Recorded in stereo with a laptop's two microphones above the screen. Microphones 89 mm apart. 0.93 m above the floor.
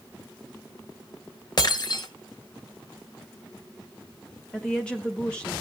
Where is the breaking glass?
50° left (ahead or behind), 1.2 m.